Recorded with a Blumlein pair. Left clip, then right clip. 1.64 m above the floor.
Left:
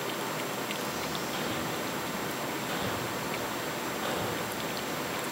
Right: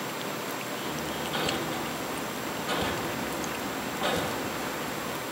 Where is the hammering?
65° right, 2.5 m.